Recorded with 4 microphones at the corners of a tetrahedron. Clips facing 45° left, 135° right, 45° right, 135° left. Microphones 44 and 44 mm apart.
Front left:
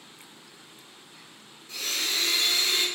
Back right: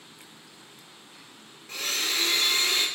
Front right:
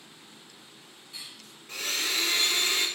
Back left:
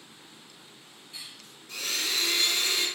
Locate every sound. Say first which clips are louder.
1.7 s a blender: back right 1 dB, front right 1 dB; 90° right, 0.7 m